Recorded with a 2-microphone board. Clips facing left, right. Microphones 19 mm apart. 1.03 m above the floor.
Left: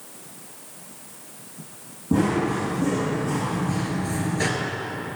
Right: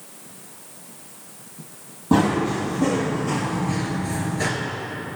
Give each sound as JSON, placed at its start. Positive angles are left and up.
{"t": 2.1, "sound": "running footsteps", "side_deg": -55, "distance_m": 1.9}